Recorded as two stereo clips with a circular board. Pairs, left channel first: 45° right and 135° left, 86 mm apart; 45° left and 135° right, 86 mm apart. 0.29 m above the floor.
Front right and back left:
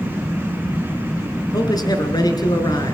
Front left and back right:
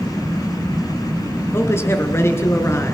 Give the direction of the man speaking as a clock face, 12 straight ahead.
12 o'clock.